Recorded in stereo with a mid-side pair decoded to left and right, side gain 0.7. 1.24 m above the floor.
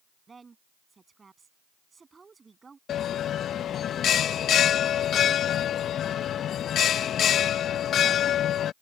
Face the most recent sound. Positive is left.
turn(degrees=40)